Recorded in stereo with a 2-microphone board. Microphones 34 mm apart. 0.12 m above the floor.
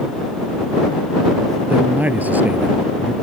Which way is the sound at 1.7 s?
55° right (ahead or behind).